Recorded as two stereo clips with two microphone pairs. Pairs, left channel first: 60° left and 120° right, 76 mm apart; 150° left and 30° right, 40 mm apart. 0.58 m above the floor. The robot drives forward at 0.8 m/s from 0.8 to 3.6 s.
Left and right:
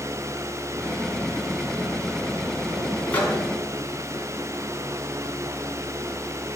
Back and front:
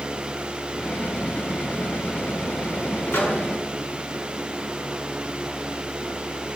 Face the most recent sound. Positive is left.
turn(degrees=140)